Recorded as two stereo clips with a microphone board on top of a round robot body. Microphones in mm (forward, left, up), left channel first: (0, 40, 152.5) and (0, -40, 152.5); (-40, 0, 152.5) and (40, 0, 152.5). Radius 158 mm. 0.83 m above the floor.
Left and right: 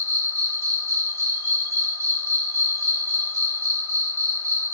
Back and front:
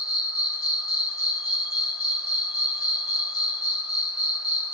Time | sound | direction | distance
0.0 | an insect | 75° right | 1.9 m